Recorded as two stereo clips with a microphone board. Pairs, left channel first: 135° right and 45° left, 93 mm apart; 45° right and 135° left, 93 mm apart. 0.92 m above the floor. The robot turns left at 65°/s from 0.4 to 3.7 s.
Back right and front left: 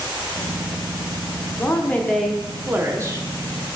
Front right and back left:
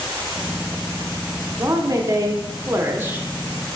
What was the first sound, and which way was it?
A woman speaking, straight behind.